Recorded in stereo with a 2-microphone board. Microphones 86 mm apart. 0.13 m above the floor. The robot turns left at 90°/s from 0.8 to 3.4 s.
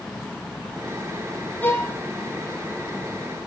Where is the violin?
160° left, 5 m; by 2.0 s 130° left, 5 m.